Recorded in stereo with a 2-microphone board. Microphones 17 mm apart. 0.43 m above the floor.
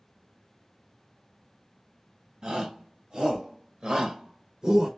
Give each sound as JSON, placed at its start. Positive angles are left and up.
{"t": 2.4, "sound": "a shout", "side_deg": -55, "distance_m": 2.5}